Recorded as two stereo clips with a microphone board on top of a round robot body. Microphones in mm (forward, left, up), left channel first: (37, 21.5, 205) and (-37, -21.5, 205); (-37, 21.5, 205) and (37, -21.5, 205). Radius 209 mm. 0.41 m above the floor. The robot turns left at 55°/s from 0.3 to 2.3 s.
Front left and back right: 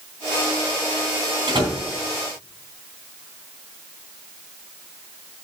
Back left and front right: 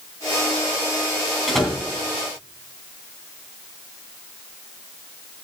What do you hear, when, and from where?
1.5 s a door slam: 120° right, 3.5 m; by 1.8 s 140° right, 3.5 m